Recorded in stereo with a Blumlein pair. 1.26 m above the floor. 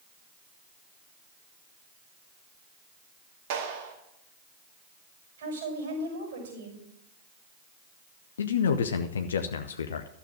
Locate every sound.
3.5 s a clap: 55° right, 2.5 m
5.4 s a woman speaking: 60° right, 5.5 m
8.4 s a man speaking: 65° left, 0.7 m